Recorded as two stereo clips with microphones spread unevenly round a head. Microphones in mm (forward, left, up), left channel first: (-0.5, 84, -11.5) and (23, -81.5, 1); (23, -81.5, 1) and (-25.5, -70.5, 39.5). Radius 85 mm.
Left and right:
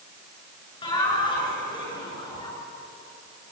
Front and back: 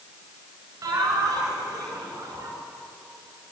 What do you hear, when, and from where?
0.8 s laughter: 160° left, 9.5 m